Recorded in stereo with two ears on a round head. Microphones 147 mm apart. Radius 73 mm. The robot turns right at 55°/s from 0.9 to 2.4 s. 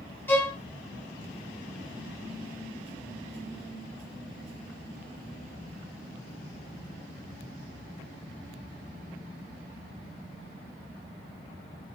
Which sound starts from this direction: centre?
A violin, at 0.3 s.